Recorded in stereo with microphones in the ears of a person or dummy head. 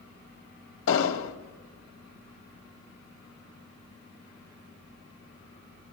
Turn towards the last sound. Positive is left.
turn(degrees=75)  # may be behind; listen again after turning